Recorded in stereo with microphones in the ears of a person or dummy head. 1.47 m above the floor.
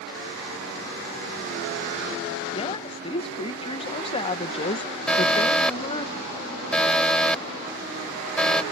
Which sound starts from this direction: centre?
An alarm, at 5.1 s.